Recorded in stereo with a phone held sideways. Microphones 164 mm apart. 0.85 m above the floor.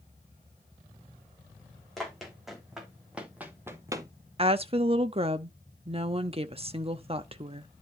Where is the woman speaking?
35° right (ahead or behind), 1.0 m.